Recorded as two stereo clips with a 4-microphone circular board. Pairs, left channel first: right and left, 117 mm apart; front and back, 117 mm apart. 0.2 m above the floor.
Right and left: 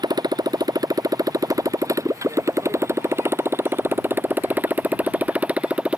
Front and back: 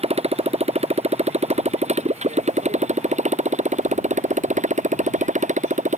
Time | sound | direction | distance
0.0 | a motorcycle | 145° left | ?